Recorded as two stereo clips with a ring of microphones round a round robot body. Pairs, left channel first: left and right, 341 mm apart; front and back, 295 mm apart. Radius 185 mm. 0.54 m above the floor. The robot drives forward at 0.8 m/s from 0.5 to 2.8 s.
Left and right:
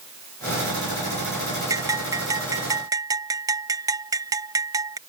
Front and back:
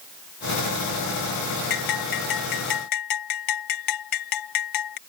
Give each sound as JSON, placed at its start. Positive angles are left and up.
{"t": 1.7, "sound": "a bell", "azimuth_deg": -10}